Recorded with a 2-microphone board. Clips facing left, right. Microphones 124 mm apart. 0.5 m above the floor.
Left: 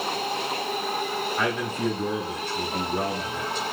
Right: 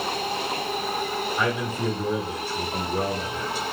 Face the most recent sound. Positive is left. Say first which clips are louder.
# even
turn(degrees=-10)  # may be behind; listen again after turning